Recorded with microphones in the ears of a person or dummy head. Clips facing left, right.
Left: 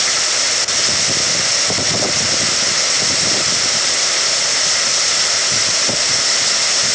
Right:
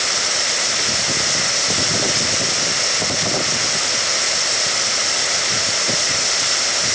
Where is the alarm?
No alarm in this recording.